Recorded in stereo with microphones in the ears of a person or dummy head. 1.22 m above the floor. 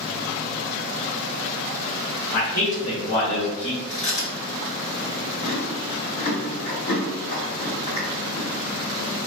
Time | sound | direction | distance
2.3 | a man speaking | 35° left (ahead or behind) | 1.1 m
3.9 | chewing | 30° left (ahead or behind) | 1.6 m